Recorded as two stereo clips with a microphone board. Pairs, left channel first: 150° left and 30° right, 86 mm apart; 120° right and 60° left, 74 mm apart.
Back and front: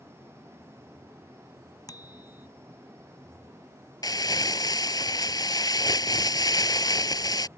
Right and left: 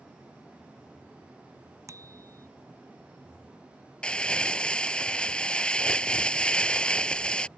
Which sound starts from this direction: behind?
Crumpling, at 4.0 s.